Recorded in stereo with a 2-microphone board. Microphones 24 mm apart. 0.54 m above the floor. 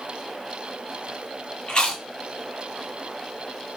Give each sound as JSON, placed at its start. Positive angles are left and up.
{"t": 1.7, "sound": "chewing", "side_deg": 40, "distance_m": 0.7}